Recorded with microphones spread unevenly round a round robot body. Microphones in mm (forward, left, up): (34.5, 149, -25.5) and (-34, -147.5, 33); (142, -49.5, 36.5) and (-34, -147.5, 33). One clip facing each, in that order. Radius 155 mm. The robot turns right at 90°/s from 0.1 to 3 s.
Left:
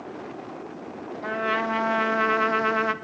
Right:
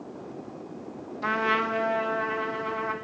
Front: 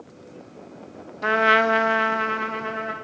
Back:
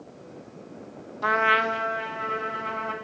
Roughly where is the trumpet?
Ahead right.